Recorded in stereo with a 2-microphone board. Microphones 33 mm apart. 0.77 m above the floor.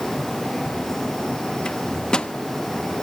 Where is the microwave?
25° left (ahead or behind), 0.8 m.